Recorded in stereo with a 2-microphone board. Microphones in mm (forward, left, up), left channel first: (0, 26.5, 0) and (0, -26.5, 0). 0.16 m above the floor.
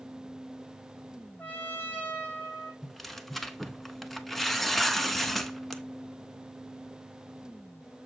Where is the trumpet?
30° left (ahead or behind), 2.5 m.